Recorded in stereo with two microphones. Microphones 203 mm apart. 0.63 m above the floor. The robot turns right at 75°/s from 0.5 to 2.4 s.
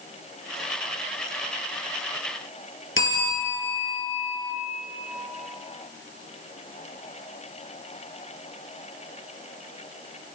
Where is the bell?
85° left, 5.5 m.